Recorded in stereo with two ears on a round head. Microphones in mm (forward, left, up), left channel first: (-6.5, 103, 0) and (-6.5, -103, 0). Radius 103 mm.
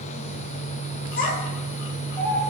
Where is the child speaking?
35° left (ahead or behind), 0.8 m; by 2.5 s 5° left (ahead or behind), 1.0 m.